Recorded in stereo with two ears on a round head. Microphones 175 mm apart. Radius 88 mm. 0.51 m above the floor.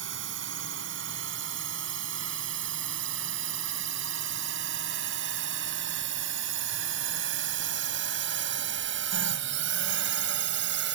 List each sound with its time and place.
0.0 s a drone: 70° right (ahead or behind); by 10.9 s 65° right (ahead or behind)